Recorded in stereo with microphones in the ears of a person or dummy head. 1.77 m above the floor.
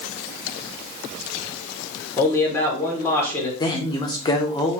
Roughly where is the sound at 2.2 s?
Centre.